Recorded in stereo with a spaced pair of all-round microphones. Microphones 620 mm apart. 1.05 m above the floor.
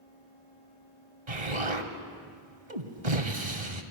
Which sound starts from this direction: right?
An explosion, at 1.3 s.